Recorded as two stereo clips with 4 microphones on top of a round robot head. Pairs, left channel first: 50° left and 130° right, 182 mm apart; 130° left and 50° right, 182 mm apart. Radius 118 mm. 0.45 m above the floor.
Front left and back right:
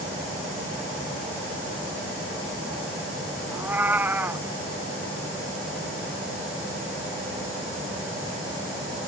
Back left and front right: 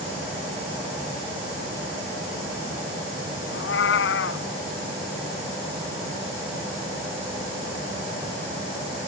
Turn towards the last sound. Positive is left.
turn(degrees=150)